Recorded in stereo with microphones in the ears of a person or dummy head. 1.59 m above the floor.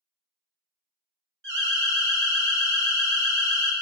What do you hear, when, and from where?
1.4 s an alarm: 60° right (ahead or behind), 1.0 m